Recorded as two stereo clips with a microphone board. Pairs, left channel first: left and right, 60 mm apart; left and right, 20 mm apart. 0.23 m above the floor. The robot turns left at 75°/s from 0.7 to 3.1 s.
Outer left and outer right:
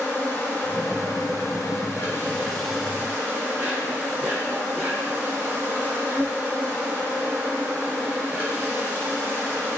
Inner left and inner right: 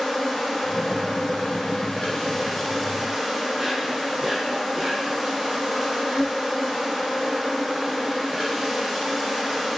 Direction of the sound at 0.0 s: 150° left.